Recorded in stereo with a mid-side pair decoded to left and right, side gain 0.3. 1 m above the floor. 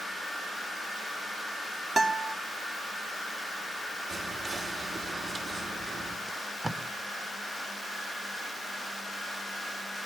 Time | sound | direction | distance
2.0 | a guitar | 50° right | 2 m
4.1 | whispering | 65° right | 3 m
6.3 | tape being pulled | 25° right | 1.3 m